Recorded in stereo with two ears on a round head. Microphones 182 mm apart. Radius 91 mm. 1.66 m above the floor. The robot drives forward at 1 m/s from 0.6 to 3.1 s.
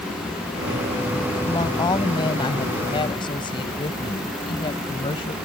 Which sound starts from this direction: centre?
A woman speaking, at 1.4 s.